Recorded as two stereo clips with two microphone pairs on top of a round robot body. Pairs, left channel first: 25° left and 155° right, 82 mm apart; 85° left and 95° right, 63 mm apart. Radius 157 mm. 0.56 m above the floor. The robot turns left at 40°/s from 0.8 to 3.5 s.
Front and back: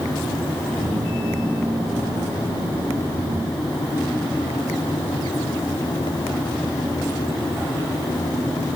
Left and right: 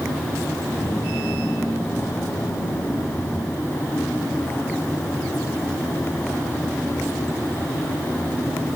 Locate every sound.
Only background noise.